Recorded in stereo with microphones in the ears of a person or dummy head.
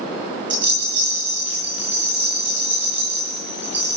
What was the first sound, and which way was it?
A rattle, 35° right (ahead or behind).